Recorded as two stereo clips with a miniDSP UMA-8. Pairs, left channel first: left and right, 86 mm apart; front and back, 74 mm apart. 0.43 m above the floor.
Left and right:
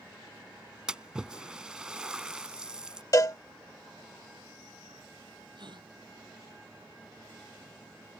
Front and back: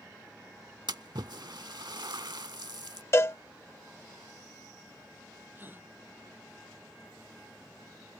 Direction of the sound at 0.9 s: 170° right.